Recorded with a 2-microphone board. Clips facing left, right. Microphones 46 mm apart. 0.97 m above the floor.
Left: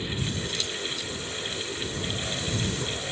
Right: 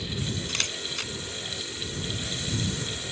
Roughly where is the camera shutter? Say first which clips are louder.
Even; right.